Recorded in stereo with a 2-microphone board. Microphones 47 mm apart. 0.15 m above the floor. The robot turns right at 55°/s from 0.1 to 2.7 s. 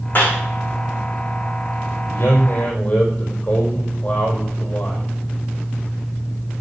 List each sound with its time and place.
0.1 s a clap: 45° left (ahead or behind), 8 m; by 0.4 s 30° left (ahead or behind), 8 m
2.1 s a man speaking: 120° left, 4.5 m; by 5.0 s 150° left, 4.5 m